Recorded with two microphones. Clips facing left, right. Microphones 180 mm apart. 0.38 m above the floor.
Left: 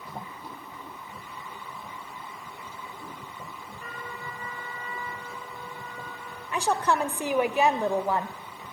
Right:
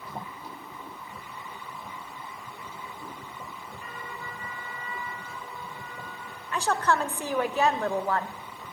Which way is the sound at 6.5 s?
15° left (ahead or behind).